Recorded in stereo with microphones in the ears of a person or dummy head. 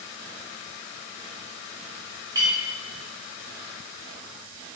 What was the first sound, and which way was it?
A clink, 15° right (ahead or behind).